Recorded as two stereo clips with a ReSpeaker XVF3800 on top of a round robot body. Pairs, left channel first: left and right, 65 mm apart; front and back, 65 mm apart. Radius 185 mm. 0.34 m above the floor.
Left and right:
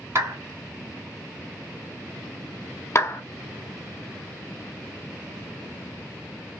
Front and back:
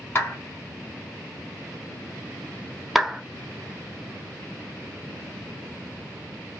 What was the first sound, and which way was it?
A clap, 50° right.